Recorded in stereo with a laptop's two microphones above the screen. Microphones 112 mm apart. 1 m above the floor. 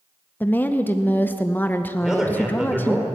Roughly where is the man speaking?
Centre.